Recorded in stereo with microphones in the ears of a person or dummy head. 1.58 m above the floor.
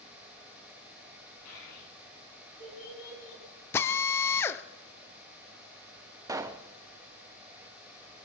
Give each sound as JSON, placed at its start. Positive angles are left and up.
{"t": 1.4, "sound": "a child speaking", "side_deg": 80, "distance_m": 7.5}
{"t": 3.7, "sound": "a drill", "side_deg": 15, "distance_m": 0.7}
{"t": 6.3, "sound": "a pop", "side_deg": -20, "distance_m": 0.7}